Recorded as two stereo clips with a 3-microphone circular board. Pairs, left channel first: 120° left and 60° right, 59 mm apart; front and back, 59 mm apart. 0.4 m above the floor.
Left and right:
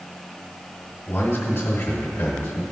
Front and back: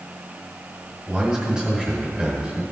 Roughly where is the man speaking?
Left.